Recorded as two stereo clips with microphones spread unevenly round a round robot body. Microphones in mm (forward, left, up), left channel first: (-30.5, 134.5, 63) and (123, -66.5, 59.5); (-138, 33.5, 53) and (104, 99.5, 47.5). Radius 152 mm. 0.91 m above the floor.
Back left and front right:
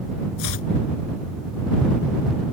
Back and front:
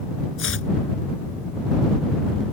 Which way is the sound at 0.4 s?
155° left.